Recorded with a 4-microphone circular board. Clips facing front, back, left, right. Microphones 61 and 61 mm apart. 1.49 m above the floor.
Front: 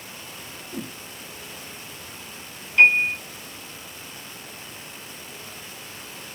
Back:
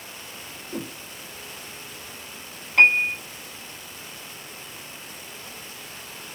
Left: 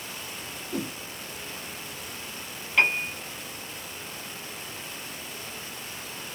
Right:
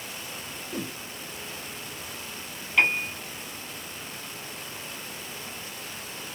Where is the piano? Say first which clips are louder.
Front 1 dB, even; 170° left, 2.5 m.